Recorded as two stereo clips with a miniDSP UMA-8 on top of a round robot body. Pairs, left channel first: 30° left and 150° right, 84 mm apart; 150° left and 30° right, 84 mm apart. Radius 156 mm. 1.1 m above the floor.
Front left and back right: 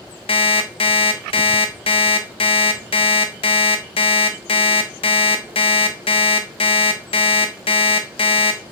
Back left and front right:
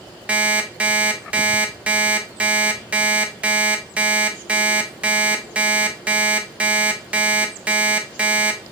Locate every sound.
0.3 s an alarm clock: 45° left, 0.7 m